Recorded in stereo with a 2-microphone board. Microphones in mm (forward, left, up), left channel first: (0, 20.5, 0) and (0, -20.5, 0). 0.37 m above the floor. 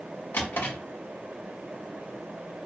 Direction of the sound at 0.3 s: 60° left (ahead or behind).